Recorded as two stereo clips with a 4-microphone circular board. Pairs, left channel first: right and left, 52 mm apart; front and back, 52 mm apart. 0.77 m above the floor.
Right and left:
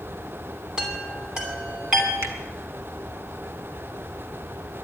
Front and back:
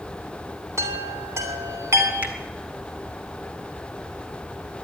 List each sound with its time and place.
0.8 s a chime: 165° left, 2.5 m
2.2 s a finger snap: 130° left, 2.0 m